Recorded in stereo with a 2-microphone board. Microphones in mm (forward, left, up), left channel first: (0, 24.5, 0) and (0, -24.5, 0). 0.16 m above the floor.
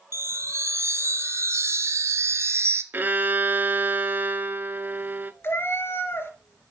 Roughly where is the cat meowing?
Left.